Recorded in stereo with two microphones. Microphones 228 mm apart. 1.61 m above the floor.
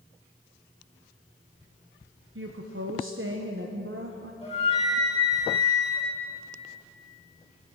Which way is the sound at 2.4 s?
60° right (ahead or behind).